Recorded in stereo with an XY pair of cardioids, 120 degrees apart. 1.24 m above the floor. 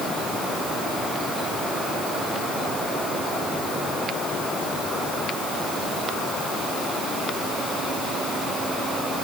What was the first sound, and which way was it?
Only background noise.